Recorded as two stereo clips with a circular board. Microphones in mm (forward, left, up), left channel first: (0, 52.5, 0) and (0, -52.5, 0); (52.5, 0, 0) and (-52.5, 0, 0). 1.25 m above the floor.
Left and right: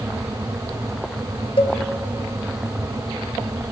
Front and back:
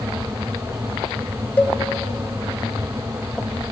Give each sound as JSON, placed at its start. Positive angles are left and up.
{"t": 1.6, "sound": "a cowbell", "azimuth_deg": 70, "distance_m": 1.5}